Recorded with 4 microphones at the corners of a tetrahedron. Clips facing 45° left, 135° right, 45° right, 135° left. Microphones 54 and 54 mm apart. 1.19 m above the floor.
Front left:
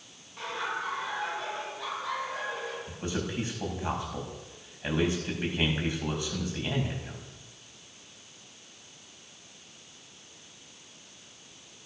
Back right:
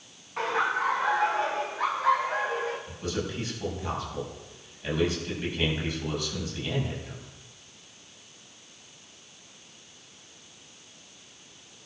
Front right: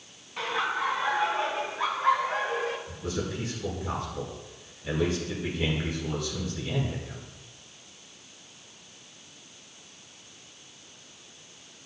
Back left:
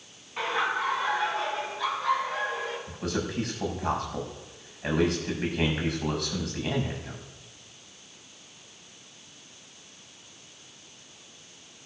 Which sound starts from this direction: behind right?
Laughter, at 0.4 s.